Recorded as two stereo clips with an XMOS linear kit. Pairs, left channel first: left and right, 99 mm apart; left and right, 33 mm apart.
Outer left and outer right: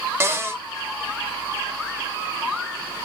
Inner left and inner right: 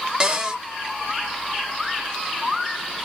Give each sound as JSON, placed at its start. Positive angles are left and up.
{"t": 0.2, "sound": "a cupboard door", "side_deg": -25, "distance_m": 0.7}